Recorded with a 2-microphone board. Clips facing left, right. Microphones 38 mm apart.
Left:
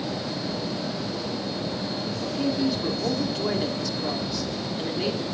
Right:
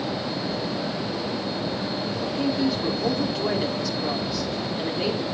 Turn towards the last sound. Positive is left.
turn(degrees=-5)  # may be behind; listen again after turning